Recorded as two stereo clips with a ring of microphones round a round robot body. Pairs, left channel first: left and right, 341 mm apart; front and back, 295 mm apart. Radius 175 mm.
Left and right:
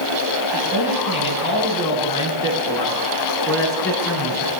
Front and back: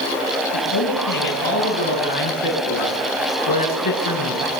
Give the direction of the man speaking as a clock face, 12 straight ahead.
11 o'clock.